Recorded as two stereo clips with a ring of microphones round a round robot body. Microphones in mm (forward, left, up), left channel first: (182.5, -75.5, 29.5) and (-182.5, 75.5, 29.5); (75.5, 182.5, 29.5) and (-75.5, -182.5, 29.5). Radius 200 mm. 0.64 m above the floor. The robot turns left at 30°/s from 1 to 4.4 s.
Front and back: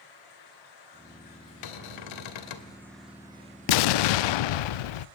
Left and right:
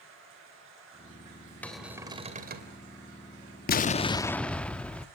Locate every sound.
0.0 s running water: 50° right, 9.5 m; by 5.2 s 155° right, 9.5 m
1.6 s a cupboard door: 20° right, 2.5 m; by 2.7 s 50° right, 2.5 m
3.7 s an explosion: straight ahead, 0.6 m; by 5.1 s 20° right, 0.6 m